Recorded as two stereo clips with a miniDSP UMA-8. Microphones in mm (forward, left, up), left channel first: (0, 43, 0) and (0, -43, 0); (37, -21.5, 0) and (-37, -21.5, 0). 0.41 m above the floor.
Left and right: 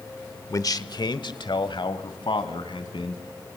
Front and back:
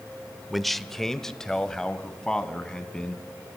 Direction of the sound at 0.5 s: 90° left.